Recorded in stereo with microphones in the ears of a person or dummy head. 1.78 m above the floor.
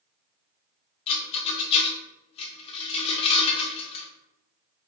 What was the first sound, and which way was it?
A rattle, 35° left (ahead or behind).